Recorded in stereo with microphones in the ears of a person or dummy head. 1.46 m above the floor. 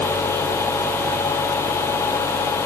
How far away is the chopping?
I don't hear chopping.